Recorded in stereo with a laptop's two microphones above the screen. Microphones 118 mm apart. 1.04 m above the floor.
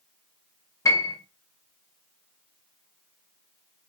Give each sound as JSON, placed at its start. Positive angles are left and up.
{"t": 0.8, "sound": "a piano", "side_deg": 25, "distance_m": 1.0}